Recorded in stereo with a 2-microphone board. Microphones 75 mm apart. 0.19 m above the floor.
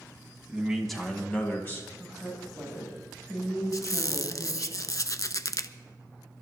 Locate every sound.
0.5 s a man speaking: 10° right (ahead or behind), 1.7 m; by 1.9 s 35° left (ahead or behind), 1.6 m
2.0 s a woman speaking: centre (ahead or behind), 8 m
3.7 s a squeak: 50° left (ahead or behind), 0.5 m